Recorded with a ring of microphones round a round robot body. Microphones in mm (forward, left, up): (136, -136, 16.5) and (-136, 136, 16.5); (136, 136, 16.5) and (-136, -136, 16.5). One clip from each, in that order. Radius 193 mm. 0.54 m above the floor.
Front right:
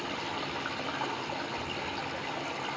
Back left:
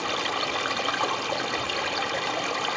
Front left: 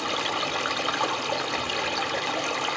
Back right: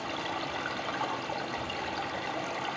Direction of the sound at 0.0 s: 100° left.